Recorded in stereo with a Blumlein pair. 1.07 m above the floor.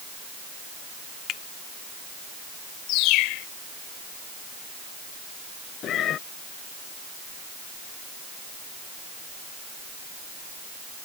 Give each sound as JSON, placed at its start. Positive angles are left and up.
{"t": 1.3, "sound": "a finger snap", "azimuth_deg": 35}
{"t": 2.9, "sound": "a bird", "azimuth_deg": 40}
{"t": 5.8, "sound": "a cat meowing", "azimuth_deg": 30}